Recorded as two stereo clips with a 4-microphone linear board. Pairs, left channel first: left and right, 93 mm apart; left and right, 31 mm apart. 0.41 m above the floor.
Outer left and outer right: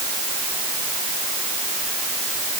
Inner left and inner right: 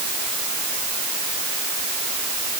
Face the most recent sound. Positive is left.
No sound to turn to.